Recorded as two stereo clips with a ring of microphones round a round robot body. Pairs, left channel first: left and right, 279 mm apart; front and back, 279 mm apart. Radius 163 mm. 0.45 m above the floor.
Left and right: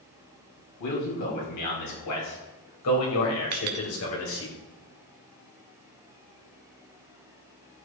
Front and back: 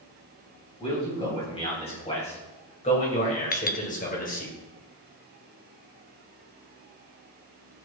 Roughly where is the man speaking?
Left.